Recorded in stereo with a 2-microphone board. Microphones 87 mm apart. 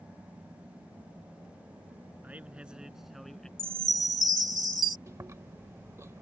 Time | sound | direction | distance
2.2 | a man speaking | 20° right (ahead or behind) | ?
3.6 | a chime | 45° left (ahead or behind) | ?
5.1 | chewing | 35° right (ahead or behind) | ?